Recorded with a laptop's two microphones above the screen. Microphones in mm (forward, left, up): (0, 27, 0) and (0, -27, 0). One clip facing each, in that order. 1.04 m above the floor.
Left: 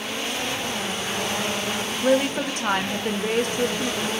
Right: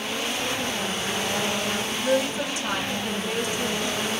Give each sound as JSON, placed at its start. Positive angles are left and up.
{"t": 2.0, "sound": "a woman speaking", "side_deg": 50, "distance_m": 0.5}